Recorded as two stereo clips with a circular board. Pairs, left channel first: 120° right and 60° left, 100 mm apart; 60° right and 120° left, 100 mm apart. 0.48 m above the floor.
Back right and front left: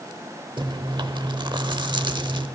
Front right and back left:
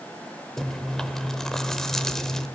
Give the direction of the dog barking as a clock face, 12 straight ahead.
No dog barking in this recording.